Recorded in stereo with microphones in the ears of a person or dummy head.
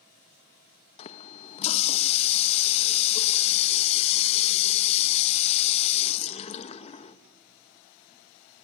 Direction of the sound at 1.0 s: 35° left (ahead or behind).